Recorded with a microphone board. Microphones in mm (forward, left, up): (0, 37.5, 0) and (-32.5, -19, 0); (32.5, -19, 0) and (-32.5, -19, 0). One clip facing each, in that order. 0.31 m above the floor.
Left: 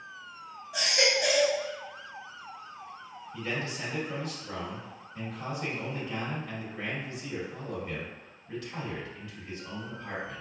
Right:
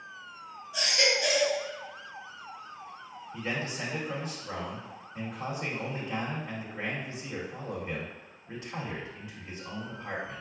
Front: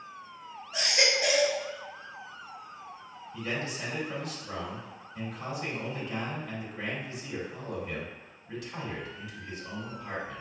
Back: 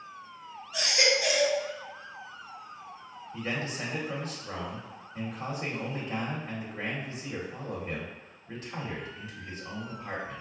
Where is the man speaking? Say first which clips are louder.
Even, back 1 dB; 160° right, 1.4 m.